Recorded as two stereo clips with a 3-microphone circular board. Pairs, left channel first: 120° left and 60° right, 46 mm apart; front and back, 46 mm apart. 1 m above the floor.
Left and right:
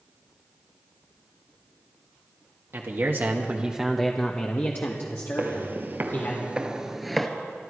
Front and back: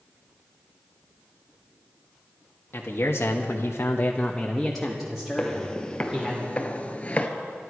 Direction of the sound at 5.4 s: 70° right.